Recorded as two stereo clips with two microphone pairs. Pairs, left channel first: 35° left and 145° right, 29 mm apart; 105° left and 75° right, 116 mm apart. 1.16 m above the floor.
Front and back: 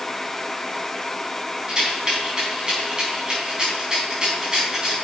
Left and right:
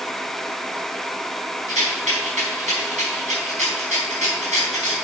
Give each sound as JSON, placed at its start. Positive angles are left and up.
{"t": 1.7, "sound": "a rattle", "azimuth_deg": -80, "distance_m": 4.5}